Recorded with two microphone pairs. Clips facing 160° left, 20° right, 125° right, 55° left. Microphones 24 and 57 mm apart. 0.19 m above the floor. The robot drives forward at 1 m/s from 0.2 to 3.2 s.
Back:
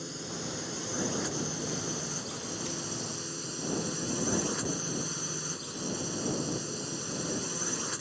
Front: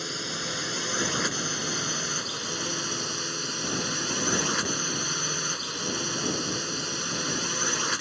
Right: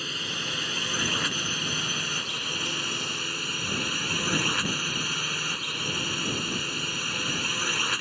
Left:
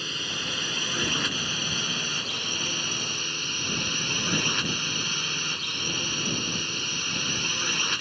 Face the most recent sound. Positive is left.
turn(degrees=-40)